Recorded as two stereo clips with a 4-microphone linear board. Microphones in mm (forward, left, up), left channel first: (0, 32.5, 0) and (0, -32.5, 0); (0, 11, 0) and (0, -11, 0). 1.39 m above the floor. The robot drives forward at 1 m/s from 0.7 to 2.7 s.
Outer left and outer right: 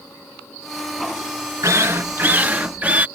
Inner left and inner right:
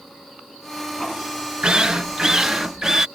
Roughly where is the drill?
Right.